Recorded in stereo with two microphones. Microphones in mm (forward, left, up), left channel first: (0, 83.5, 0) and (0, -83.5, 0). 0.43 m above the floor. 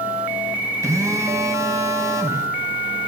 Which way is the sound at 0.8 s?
20° right (ahead or behind).